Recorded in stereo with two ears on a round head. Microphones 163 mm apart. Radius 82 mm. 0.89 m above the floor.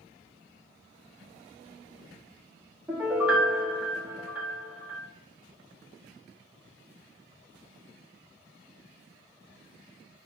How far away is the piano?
About 1.4 m.